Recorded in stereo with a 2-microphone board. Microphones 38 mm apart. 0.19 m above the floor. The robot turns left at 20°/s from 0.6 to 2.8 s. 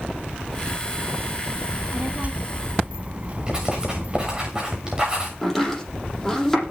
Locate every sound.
1.7 s a child speaking: 40° right (ahead or behind), 0.8 m; by 4.5 s 35° right (ahead or behind), 0.8 m
3.5 s writing: 15° right (ahead or behind), 6 m
5.4 s chopping: 5° left (ahead or behind), 7.5 m